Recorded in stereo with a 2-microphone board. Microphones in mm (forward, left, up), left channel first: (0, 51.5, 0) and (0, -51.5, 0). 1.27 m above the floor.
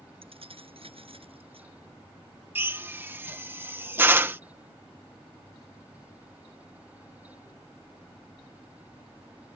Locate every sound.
0.2 s keys jangling: 65° right (ahead or behind)
2.5 s a drill: 20° right (ahead or behind)